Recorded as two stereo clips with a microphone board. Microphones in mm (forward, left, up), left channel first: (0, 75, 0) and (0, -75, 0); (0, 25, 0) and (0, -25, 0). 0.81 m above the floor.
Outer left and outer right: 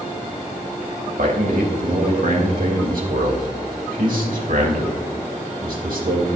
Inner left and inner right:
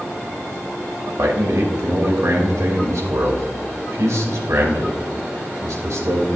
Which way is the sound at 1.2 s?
70° right (ahead or behind).